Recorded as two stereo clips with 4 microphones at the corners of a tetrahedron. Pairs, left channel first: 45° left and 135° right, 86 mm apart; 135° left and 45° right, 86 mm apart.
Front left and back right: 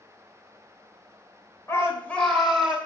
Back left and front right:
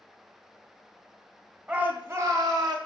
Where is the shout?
25° left, 1.4 m; by 2.8 s 55° right, 1.9 m.